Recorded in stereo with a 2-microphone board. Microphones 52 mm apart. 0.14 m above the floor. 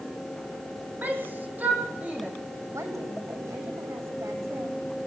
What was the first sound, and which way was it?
A shout, 35° right (ahead or behind).